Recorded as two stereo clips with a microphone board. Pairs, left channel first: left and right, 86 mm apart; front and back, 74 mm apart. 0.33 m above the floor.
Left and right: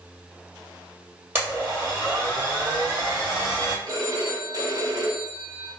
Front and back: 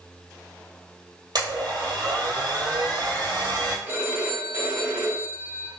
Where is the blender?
155° right, 2 m.